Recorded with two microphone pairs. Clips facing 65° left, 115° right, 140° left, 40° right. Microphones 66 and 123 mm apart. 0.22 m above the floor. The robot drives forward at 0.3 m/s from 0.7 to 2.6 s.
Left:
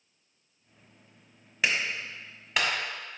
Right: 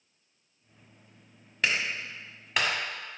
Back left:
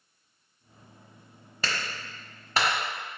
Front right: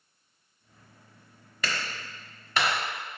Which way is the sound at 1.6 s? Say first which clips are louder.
Even, even; 150° left.